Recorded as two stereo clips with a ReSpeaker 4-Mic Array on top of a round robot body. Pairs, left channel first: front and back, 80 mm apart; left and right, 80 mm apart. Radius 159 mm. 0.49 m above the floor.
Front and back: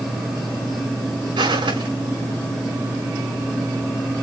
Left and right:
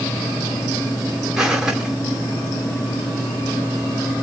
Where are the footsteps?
170° right, 4 m.